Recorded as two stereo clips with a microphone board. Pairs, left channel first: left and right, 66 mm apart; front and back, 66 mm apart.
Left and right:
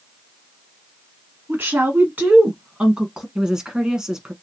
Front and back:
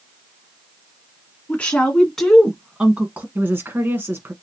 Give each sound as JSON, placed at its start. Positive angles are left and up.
{"t": 1.5, "sound": "a woman speaking", "azimuth_deg": -55, "distance_m": 1.6}
{"t": 3.4, "sound": "a woman speaking", "azimuth_deg": -160, "distance_m": 1.2}